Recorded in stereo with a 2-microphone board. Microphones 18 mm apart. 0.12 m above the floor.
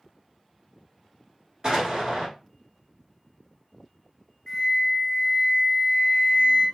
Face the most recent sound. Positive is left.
turn(degrees=20)  # may be behind; listen again after turning